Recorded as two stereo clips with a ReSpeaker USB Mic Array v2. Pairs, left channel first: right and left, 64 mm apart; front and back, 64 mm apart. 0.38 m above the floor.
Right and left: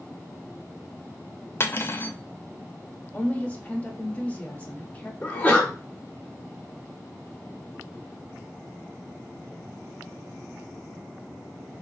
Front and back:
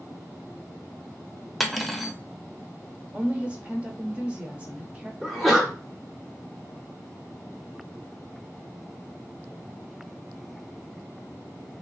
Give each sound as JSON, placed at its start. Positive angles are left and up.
{"t": 1.6, "sound": "cutlery clinking", "azimuth_deg": -90, "distance_m": 0.5}
{"t": 3.1, "sound": "a woman speaking", "azimuth_deg": -135, "distance_m": 1.0}
{"t": 5.2, "sound": "a sneeze", "azimuth_deg": -95, "distance_m": 1.1}